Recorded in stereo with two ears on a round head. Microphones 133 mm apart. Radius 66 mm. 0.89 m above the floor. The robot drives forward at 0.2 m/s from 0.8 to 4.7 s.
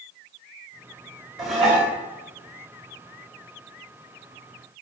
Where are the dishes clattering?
Centre (ahead or behind), 1.0 m.